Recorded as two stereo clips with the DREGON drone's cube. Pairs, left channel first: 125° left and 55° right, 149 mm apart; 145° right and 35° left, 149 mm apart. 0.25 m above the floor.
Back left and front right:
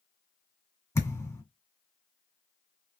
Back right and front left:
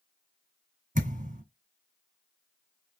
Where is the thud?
55° left, 1.6 m.